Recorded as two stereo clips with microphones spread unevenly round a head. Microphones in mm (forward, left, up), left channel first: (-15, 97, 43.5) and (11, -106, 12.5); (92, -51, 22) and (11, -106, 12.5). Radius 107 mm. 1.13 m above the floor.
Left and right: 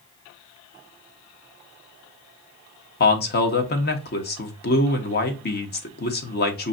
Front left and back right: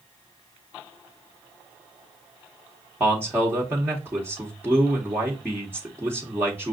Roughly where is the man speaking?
Behind left.